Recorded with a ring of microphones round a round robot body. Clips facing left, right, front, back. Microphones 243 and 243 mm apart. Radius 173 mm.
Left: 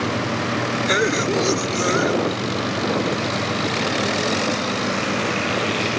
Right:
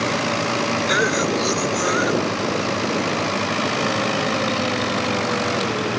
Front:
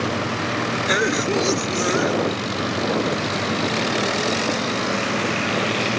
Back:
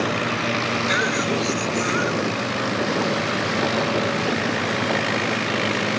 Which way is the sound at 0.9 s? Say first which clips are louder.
Left 2 dB, front 5 dB; 35° left.